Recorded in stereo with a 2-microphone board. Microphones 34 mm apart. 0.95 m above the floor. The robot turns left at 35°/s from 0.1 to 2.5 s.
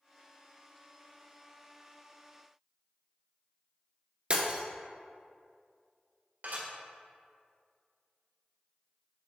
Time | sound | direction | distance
4.3 | breaking glass | 40° right (ahead or behind) | 1.1 m
6.4 | dishes clattering | 80° right | 1.9 m